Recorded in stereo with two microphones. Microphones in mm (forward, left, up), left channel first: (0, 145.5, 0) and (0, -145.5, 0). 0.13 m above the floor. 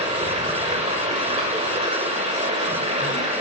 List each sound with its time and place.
0.0 s running water: 25° right (ahead or behind), 6 m